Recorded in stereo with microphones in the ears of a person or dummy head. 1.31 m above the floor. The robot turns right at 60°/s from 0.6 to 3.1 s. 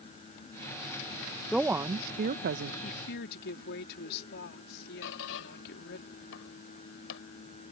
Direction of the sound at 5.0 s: 70° left (ahead or behind).